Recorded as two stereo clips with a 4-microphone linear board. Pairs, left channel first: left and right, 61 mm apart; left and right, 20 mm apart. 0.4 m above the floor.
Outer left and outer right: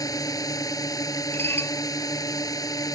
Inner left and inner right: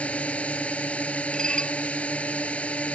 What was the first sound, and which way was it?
A drone, 80° left.